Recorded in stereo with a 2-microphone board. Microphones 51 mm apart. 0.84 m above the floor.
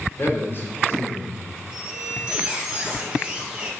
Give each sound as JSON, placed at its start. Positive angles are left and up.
{"t": 0.2, "sound": "a man speaking", "side_deg": 45, "distance_m": 3.0}
{"t": 1.7, "sound": "a squeak", "side_deg": -20, "distance_m": 2.5}